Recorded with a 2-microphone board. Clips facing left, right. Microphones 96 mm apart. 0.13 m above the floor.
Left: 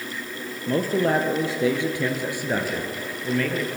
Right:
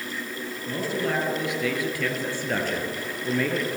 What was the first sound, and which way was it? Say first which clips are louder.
A man speaking: left 6 dB; 45° left (ahead or behind).